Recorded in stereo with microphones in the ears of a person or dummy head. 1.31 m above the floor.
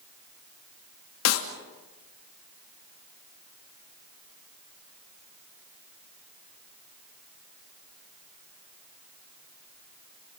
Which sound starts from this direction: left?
A clap, at 1.2 s.